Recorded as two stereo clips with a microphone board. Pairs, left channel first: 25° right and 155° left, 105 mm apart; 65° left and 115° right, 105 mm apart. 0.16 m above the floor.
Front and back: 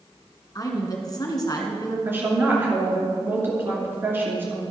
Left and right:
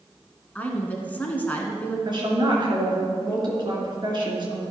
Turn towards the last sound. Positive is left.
turn(degrees=-140)